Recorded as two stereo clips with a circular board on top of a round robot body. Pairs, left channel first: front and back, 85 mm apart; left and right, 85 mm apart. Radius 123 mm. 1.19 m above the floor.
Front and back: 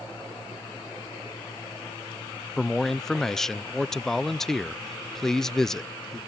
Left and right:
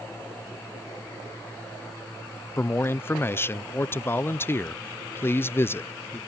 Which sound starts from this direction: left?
A man speaking, at 2.6 s.